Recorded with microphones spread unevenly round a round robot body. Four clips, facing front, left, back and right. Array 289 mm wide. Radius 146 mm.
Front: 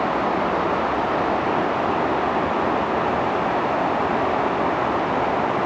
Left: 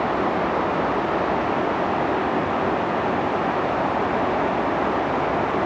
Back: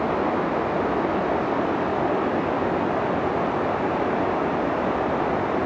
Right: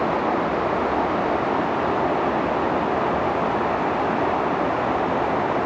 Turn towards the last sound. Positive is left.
No sound to turn to.